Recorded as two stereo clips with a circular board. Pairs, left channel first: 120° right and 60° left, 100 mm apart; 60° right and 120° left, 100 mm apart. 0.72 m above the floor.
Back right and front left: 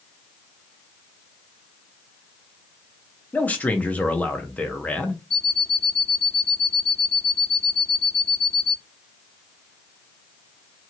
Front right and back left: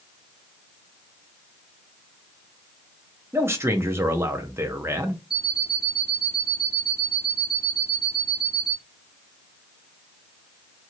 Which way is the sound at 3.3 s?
170° left.